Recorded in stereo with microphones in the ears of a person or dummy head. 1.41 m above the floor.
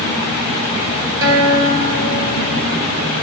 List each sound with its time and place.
1.2 s a guitar: 65° right (ahead or behind), 3 m